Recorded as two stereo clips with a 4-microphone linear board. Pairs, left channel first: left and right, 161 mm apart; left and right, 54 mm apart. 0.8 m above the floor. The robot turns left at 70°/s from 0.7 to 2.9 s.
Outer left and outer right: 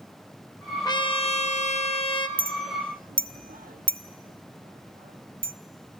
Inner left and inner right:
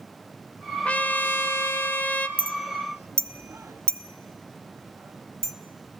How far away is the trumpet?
About 0.8 m.